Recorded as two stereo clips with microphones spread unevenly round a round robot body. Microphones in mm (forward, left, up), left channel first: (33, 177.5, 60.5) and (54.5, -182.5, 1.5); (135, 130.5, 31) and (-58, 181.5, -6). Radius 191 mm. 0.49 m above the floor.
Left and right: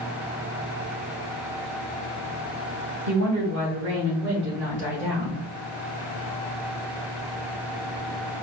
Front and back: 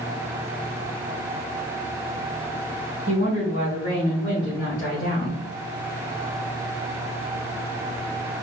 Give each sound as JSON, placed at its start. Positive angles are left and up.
{"t": 3.1, "sound": "a woman speaking", "azimuth_deg": -60, "distance_m": 2.5}